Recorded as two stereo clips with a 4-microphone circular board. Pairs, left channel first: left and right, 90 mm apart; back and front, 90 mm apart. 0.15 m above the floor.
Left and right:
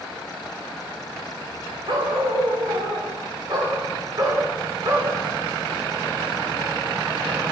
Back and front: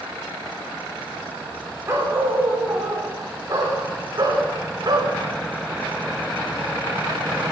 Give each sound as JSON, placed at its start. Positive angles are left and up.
{"t": 1.9, "sound": "a dog barking", "azimuth_deg": -65, "distance_m": 9.0}